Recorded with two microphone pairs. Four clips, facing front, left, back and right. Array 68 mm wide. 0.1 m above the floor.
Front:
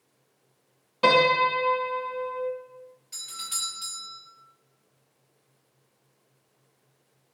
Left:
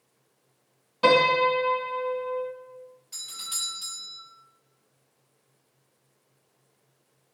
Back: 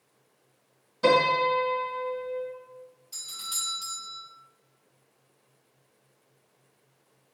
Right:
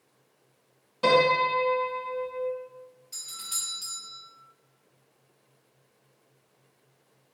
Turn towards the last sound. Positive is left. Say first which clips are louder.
# left 2 dB, front 1 dB
turn(degrees=10)